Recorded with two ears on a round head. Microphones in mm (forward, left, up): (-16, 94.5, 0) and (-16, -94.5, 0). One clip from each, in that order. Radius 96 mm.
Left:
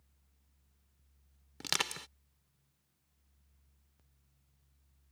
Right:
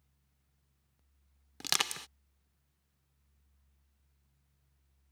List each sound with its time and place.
1.6 s crushing: 20° right (ahead or behind)